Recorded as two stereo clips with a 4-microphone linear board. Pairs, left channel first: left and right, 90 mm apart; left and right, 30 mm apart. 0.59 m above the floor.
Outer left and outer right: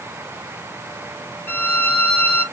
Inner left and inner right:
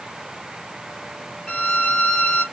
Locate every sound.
1.5 s a violin: 25° left (ahead or behind), 1.6 m